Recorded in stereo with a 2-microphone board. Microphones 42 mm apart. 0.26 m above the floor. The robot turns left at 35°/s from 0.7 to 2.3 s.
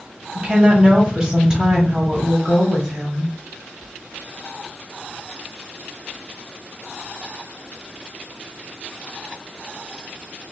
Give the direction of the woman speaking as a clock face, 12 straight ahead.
4 o'clock.